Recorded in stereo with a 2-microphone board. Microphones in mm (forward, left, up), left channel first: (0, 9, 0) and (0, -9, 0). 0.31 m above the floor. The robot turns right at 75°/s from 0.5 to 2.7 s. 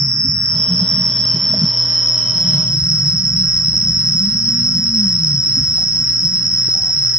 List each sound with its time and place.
0.0 s an insect: 95° left, 0.9 m; by 7.2 s 100° right, 0.9 m